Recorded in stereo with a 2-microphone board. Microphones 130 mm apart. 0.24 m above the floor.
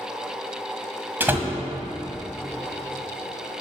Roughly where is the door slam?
Centre.